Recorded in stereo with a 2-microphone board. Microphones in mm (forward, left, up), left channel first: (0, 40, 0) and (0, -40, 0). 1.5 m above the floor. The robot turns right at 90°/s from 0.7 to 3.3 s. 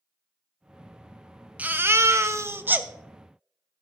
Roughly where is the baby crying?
Behind right.